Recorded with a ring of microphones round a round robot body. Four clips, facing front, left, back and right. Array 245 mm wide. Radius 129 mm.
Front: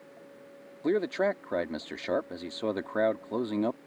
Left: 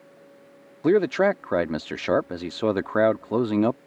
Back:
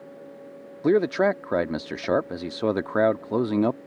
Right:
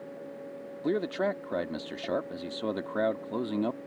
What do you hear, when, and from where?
0.8 s a man speaking: 130° left